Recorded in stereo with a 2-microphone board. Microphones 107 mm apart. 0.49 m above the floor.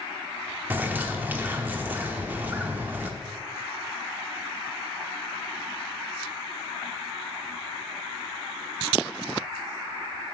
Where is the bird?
20° right (ahead or behind), 0.7 m.